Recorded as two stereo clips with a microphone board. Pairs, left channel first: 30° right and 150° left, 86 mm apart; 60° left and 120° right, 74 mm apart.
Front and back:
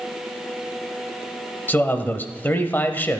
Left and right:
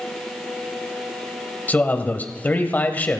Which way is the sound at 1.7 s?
15° left.